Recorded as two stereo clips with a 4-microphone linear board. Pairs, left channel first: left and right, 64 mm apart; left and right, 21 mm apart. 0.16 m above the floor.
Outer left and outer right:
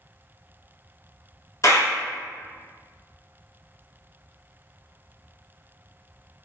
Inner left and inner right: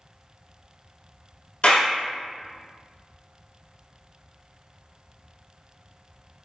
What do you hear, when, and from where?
1.6 s a clap: 50° left (ahead or behind), 1.3 m